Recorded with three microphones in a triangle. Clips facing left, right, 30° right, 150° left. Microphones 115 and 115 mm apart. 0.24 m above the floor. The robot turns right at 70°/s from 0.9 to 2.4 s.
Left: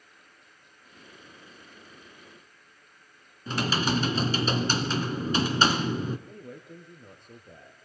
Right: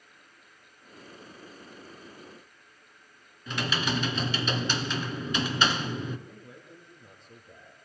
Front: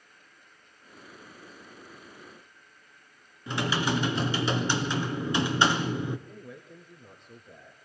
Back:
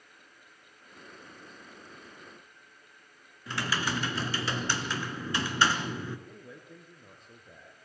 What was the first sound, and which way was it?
Typing on a keyboard, 40° left.